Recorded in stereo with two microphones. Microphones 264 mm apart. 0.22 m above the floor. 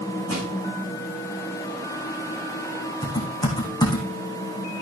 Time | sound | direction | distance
0.3 | crushing | 65° right (ahead or behind) | 5.5 m
3.0 | typing on a keyboard | 15° left (ahead or behind) | 4 m